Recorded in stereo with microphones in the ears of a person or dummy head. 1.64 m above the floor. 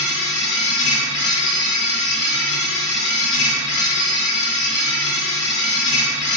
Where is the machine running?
65° left (ahead or behind), 1.0 m.